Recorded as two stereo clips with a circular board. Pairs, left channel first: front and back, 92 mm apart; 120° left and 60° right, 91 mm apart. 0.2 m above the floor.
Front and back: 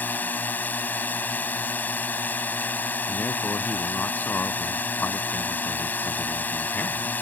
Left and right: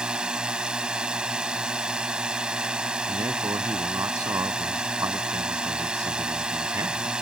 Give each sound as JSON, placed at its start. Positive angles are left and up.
{"t": 0.0, "sound": "a drone", "azimuth_deg": 0}
{"t": 3.1, "sound": "a man speaking", "azimuth_deg": -55}